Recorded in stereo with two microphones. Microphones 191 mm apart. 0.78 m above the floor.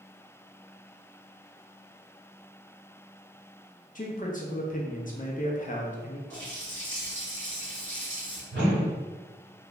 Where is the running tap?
80° right, 1.8 m.